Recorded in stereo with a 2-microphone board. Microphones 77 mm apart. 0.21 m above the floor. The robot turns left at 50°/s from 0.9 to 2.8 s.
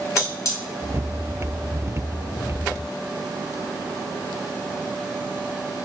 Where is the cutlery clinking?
50° left (ahead or behind), 0.9 m.